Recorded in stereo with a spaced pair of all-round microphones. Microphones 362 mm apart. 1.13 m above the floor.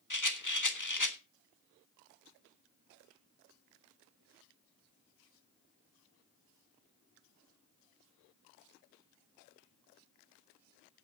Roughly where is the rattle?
Left.